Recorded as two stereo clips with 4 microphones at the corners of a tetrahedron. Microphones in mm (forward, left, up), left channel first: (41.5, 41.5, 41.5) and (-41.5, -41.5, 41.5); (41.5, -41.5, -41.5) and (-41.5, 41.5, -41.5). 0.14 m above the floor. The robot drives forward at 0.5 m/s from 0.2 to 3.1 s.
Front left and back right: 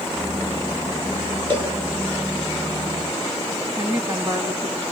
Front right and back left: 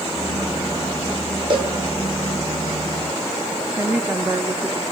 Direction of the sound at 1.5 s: Straight behind.